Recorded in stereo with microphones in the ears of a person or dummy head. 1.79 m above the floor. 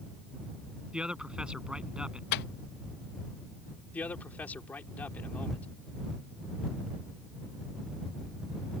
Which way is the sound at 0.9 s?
Centre (ahead or behind).